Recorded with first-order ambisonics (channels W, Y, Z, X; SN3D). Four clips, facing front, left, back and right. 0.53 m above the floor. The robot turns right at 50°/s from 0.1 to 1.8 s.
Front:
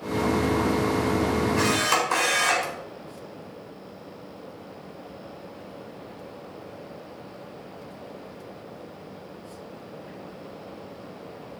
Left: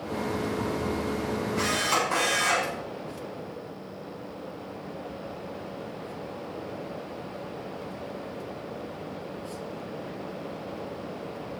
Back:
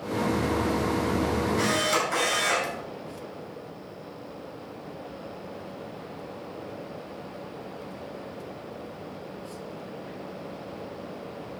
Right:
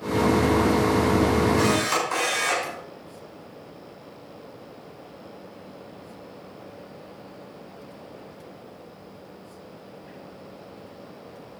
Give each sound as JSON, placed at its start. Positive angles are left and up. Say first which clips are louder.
{"t": 1.6, "sound": "a camera shutter", "louder": "right 3 dB, front 2 dB", "azimuth_deg": -30, "distance_m": 6.5}